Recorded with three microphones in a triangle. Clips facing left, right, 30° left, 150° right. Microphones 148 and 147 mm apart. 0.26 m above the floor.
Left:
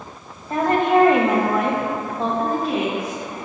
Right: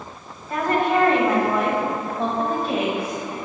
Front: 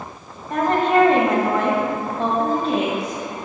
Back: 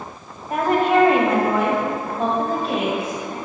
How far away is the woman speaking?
About 1.9 m.